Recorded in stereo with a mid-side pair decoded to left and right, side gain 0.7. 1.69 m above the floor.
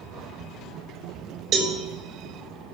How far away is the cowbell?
About 4.5 m.